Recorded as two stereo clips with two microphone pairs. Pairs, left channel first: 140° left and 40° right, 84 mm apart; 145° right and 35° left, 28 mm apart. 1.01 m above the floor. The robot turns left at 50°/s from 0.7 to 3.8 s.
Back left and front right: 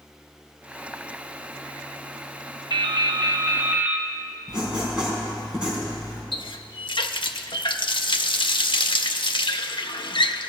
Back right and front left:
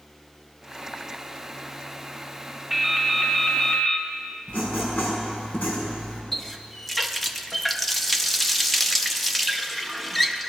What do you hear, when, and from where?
2.7 s dripping: 50° right, 1.2 m; by 4.1 s 105° right, 1.2 m
4.5 s writing: 120° right, 5 m
6.3 s a running tap: 130° left, 0.7 m